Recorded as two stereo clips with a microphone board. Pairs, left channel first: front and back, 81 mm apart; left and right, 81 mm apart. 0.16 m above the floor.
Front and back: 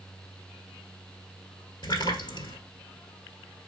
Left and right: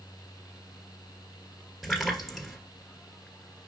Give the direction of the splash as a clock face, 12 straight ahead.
12 o'clock.